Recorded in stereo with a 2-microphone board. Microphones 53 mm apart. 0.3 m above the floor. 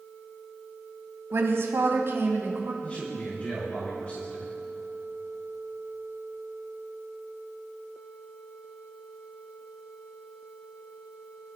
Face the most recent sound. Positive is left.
turn(degrees=25)  # may be behind; listen again after turning